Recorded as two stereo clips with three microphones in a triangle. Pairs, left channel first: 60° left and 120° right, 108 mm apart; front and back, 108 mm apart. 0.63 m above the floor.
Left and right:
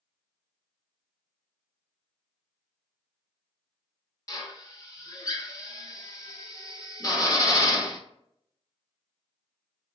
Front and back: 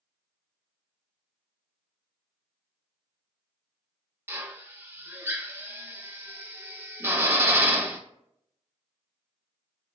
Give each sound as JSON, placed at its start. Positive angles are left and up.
{"t": 4.3, "sound": "a drill", "azimuth_deg": 115, "distance_m": 0.7}